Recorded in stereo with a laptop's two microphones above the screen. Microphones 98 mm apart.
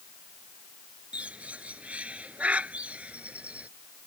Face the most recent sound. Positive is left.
turn(degrees=-15)  # may be behind; listen again after turning